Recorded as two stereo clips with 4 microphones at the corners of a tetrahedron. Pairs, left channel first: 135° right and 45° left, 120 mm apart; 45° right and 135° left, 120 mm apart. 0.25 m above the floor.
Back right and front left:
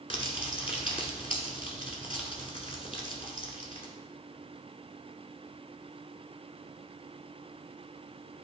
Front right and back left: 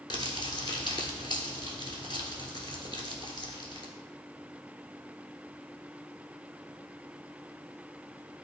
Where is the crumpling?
95° right, 1.2 m.